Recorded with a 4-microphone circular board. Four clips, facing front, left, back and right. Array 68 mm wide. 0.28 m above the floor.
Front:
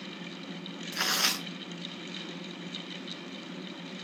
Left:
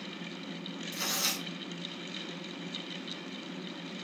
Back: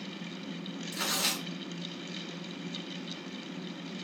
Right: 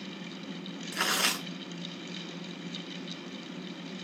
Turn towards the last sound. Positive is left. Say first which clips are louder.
# right 7 dB, front 3 dB
turn(degrees=-65)